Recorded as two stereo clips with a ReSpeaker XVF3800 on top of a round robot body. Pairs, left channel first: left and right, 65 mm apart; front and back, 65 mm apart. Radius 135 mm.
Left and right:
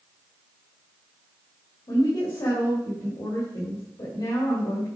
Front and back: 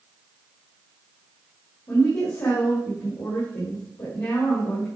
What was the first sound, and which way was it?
A woman speaking, 55° left.